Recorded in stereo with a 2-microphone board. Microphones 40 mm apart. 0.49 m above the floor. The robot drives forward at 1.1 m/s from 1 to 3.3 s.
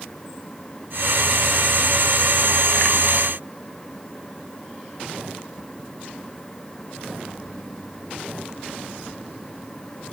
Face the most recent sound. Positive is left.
No sound to turn to.